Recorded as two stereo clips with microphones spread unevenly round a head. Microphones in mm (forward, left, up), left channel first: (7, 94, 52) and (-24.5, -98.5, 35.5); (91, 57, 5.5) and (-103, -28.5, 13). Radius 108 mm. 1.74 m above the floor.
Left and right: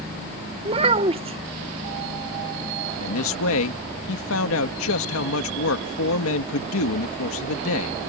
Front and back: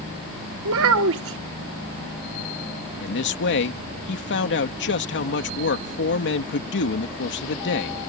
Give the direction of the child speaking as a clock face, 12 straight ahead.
5 o'clock.